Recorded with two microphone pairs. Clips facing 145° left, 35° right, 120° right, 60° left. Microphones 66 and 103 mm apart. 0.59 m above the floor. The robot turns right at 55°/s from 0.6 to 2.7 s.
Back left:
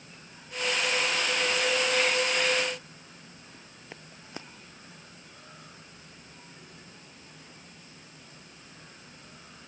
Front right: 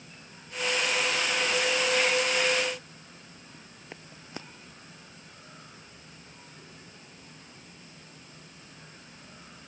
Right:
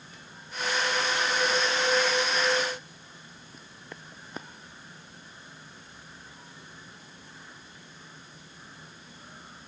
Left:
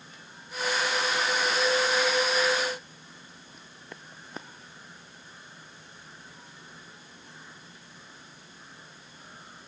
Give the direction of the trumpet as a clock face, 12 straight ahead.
I don't hear a trumpet.